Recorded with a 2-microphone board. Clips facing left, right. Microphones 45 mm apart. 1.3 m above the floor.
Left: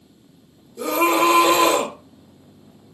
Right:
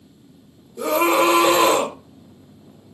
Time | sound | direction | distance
0.8 | a scream | 20° right (ahead or behind) | 1.3 m